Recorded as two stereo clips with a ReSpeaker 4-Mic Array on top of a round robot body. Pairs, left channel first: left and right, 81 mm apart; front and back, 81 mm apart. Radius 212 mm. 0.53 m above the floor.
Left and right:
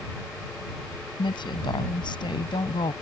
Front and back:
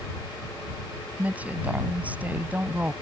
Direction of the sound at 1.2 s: 110° left.